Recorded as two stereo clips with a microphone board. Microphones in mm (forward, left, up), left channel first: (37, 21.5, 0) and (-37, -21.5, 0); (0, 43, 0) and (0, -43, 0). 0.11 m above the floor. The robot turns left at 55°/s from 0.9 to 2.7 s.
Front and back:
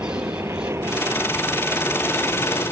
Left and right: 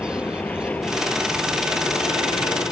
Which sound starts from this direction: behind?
An aircraft, at 0.0 s.